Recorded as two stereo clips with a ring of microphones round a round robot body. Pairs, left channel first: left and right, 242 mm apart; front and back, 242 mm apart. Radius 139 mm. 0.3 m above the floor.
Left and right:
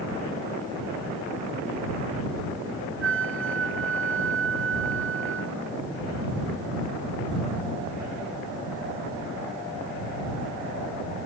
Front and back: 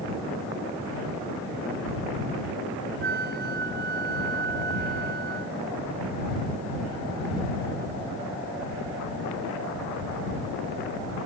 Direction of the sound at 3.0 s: 125° right.